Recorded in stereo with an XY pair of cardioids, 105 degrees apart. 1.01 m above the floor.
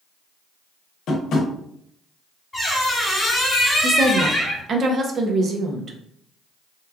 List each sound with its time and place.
1.1 s tapping: 70° left, 0.8 m
2.5 s a squeak: 10° left, 1.2 m
3.8 s a woman speaking: 50° right, 0.6 m